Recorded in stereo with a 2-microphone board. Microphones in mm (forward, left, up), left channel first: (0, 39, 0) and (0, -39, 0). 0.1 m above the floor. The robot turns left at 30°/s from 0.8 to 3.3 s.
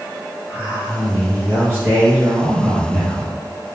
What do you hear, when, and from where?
0.5 s a man speaking: 30° right (ahead or behind), 1.7 m; by 3.4 s 15° right (ahead or behind), 1.7 m